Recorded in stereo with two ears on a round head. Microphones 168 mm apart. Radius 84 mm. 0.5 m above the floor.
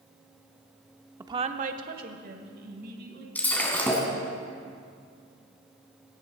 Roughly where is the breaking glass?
Centre.